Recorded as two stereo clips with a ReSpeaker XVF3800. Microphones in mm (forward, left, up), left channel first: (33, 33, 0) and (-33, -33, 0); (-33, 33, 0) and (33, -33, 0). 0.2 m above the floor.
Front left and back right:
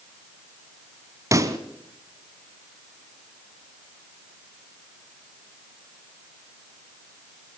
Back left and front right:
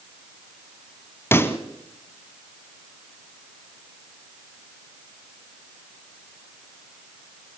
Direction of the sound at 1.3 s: 170° right.